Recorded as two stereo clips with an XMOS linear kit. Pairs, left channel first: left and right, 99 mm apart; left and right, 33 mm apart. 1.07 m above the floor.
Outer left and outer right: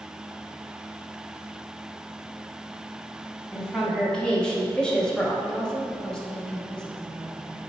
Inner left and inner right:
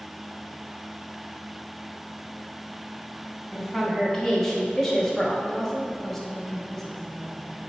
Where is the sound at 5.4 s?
5° left (ahead or behind), 1.3 m.